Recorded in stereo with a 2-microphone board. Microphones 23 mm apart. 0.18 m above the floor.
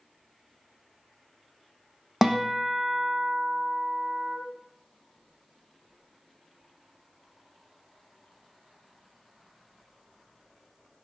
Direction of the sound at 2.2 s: 10° right (ahead or behind).